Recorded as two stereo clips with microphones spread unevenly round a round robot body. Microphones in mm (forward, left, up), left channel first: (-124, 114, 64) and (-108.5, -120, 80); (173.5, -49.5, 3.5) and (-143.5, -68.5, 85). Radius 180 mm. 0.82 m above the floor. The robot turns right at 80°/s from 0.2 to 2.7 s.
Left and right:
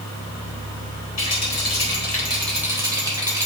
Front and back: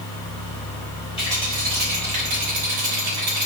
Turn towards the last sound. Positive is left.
turn(degrees=-160)